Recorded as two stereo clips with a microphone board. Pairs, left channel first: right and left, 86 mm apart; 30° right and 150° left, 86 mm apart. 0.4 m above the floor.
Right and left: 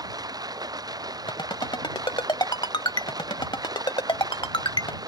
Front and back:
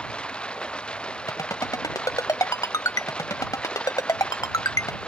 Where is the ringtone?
75° right.